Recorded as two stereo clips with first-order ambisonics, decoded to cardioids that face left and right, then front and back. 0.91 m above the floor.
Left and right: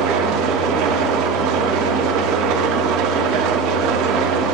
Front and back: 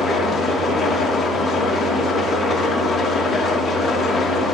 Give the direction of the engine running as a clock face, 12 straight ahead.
3 o'clock.